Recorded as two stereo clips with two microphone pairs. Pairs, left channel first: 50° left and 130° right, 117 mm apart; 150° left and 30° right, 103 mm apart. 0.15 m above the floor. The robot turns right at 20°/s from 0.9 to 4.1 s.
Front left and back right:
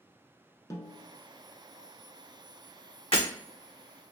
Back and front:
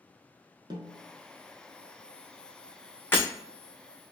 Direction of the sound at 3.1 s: 80° left.